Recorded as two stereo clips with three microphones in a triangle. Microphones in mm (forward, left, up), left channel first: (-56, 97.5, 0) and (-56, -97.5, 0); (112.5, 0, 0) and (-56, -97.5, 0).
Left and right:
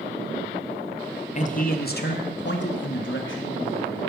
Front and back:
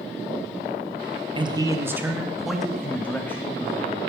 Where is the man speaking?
145° left, 1.1 m; by 4.1 s 105° left, 2.5 m.